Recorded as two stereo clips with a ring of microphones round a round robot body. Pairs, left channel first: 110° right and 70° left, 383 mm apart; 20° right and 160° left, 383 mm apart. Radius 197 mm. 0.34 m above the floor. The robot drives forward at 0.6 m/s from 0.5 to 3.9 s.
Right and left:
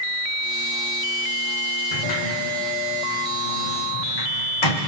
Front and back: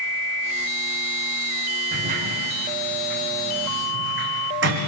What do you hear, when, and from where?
1.9 s a sliding door: 130° right, 3.5 m; by 4.8 s 140° right, 4.5 m